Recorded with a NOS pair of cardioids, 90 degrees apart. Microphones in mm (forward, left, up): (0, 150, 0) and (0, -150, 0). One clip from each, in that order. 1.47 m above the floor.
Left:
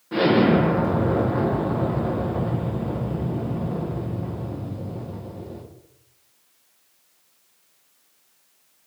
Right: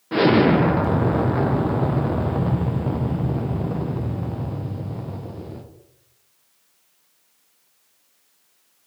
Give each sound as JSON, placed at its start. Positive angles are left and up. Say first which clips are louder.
{"t": 0.1, "sound": "an explosion", "louder": "right 2 dB", "azimuth_deg": -35, "distance_m": 1.1}